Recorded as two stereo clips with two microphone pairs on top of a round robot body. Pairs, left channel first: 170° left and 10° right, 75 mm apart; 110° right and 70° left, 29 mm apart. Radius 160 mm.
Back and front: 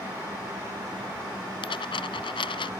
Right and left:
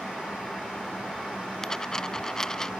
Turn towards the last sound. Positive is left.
turn(degrees=180)